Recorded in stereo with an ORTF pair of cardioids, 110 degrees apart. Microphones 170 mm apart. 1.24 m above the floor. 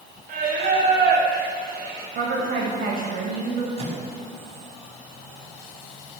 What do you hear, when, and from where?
0.3 s singing: 60° right, 7 m
2.1 s a woman speaking: 55° right, 7.5 m
3.8 s a microwave: 35° right, 6.5 m